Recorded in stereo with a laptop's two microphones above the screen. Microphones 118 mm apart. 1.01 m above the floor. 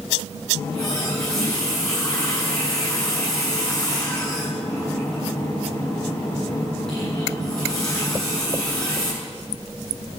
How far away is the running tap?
About 8.5 m.